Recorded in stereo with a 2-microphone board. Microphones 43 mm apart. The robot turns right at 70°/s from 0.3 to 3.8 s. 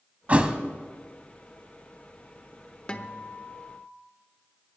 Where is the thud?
35° right (ahead or behind), 0.9 m; by 0.6 s 15° right (ahead or behind), 0.9 m.